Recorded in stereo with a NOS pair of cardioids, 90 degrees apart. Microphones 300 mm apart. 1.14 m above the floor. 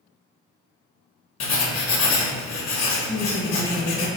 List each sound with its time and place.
1.4 s writing: 60° left, 0.8 m
3.1 s a woman speaking: 5° right, 0.9 m